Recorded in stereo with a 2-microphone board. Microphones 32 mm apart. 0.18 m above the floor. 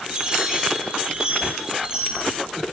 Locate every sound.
0.1 s a chime: 30° right (ahead or behind), 5 m